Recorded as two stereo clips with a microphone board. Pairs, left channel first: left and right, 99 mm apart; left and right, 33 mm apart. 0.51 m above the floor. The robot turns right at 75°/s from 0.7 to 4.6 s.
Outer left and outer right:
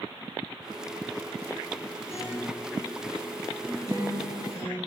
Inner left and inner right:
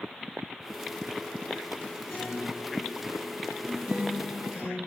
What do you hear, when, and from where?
2.1 s a guitar: 75° left (ahead or behind), 0.7 m; by 4.8 s 80° right, 0.7 m